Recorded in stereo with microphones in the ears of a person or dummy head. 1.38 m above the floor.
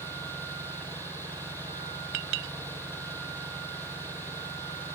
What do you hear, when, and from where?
0.0 s an engine running: 10° left (ahead or behind)
2.1 s a clink: 65° right (ahead or behind)